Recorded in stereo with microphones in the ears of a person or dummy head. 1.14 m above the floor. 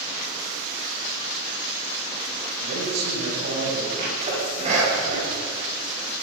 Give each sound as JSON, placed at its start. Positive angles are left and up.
{"t": 2.6, "sound": "a man speaking", "side_deg": -70, "distance_m": 8.0}
{"t": 4.0, "sound": "a sneeze", "side_deg": -40, "distance_m": 7.0}